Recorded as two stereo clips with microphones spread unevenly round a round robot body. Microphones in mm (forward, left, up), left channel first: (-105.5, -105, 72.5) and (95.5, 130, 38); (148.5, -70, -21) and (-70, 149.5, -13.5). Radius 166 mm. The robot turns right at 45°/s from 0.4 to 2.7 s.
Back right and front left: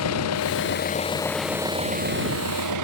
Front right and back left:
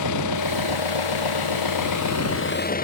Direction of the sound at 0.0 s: 85° right.